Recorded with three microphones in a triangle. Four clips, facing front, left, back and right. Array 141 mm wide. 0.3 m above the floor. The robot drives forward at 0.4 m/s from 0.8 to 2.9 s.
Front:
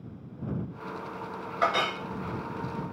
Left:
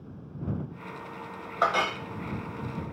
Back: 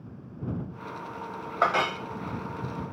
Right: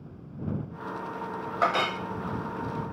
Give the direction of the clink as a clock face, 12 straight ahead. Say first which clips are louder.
Even, back 2 dB; 6 o'clock.